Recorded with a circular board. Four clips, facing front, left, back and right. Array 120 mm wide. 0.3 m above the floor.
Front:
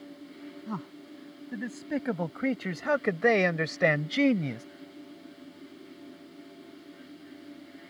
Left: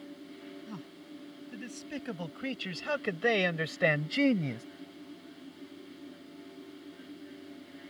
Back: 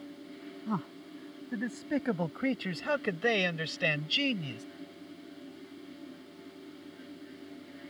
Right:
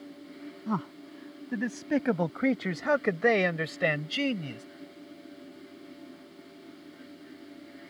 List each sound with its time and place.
0.7 s a man speaking: 100° right; by 4.7 s 30° left